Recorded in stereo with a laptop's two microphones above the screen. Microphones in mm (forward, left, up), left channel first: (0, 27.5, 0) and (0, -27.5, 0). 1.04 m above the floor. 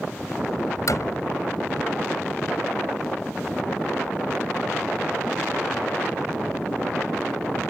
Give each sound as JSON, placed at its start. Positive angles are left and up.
{"t": 0.9, "sound": "a door slam", "side_deg": 70}